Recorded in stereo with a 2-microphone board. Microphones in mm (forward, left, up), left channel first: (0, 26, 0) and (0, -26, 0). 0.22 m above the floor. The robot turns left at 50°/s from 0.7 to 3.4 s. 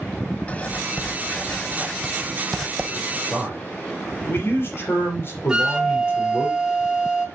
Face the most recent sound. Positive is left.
turn(degrees=-15)  # may be behind; listen again after turning